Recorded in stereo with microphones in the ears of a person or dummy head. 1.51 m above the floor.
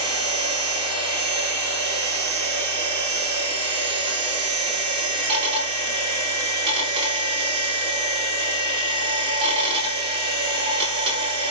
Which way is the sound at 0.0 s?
30° right (ahead or behind).